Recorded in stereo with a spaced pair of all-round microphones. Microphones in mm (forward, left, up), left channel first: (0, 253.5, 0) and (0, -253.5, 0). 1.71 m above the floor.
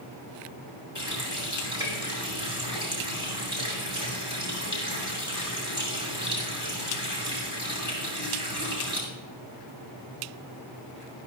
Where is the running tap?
55° left (ahead or behind), 6.5 m.